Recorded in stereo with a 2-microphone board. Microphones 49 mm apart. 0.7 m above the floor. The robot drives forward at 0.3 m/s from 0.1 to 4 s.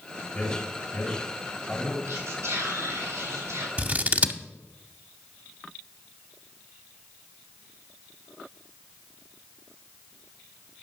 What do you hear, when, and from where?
0.3 s a man speaking: 20° left (ahead or behind), 3.5 m; by 2.0 s 15° left (ahead or behind), 4 m
2.1 s whispering: 75° right (ahead or behind), 4.5 m
3.8 s scissors: 35° right (ahead or behind), 0.6 m